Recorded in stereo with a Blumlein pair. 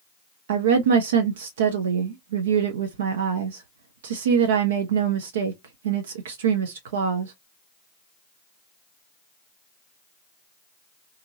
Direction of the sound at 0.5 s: 60° right.